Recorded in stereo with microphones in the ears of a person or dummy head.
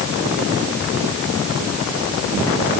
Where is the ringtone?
I don't hear a ringtone.